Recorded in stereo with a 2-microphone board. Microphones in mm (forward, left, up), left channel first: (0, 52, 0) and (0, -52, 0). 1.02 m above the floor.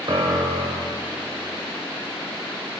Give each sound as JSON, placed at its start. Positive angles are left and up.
{"t": 0.1, "sound": "a piano", "side_deg": -50, "distance_m": 0.6}